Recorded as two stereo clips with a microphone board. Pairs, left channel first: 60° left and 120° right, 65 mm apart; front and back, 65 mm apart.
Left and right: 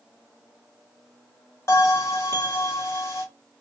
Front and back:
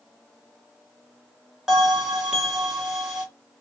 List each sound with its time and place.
1.7 s a bell: 100° left, 1.5 m